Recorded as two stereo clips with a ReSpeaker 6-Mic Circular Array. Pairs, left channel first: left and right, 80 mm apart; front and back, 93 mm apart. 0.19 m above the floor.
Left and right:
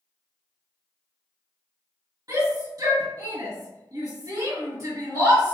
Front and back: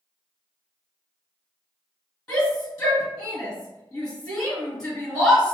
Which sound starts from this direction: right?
A shout, at 2.3 s.